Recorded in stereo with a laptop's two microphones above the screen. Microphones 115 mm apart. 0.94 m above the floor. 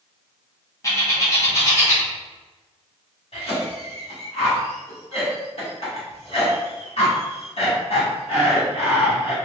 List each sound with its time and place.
0.8 s a bird: 30° left (ahead or behind), 1.1 m
3.3 s a cough: 60° left (ahead or behind), 2.0 m